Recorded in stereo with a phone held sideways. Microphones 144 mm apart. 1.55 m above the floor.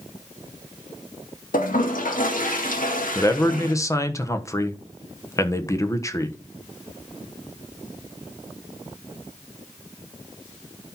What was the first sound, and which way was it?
A toilet flushing, 75° left (ahead or behind).